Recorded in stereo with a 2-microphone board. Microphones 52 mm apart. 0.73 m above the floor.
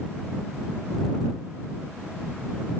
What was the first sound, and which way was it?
Only background noise.